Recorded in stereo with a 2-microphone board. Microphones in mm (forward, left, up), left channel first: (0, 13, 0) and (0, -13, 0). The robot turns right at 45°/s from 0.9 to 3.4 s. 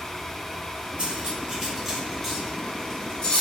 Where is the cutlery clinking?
35° right (ahead or behind), 1.3 m; by 3.4 s 50° left (ahead or behind), 1.3 m.